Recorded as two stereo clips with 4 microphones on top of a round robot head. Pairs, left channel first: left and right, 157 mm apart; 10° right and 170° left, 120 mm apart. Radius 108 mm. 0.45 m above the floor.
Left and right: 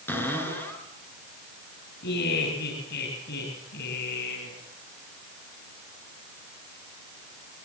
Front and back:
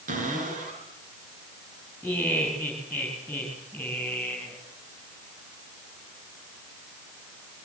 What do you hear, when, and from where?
0.1 s a cupboard door: 165° left, 8 m
2.0 s laughter: 75° left, 9 m